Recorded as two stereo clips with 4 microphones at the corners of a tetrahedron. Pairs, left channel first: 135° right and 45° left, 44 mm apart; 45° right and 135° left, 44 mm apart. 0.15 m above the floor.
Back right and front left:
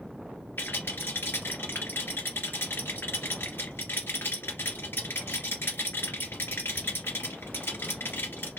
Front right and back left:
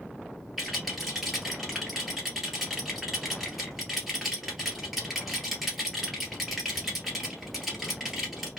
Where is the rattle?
140° right, 1.7 m.